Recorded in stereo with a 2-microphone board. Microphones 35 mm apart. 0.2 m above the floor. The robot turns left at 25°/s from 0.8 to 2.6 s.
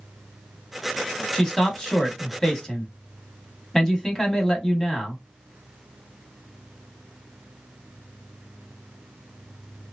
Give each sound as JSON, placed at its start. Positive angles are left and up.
{"t": 1.3, "sound": "a man speaking", "side_deg": 15, "distance_m": 1.0}